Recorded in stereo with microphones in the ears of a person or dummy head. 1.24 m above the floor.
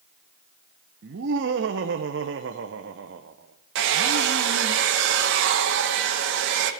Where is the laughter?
60° right (ahead or behind), 0.6 m.